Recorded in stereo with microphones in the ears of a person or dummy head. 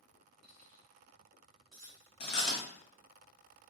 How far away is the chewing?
About 0.8 m.